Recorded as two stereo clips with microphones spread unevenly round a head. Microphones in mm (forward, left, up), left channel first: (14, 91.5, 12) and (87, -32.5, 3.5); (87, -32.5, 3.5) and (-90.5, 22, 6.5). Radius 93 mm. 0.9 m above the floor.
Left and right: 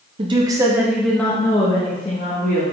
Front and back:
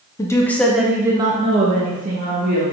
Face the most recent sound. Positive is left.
turn(degrees=135)